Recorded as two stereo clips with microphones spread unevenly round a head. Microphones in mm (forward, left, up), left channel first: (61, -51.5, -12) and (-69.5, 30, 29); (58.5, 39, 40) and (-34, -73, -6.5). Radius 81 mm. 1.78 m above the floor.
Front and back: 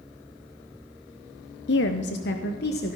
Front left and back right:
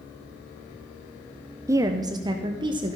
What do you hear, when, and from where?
1.7 s a woman speaking: 45° right, 0.8 m; by 3.0 s 65° right, 1.7 m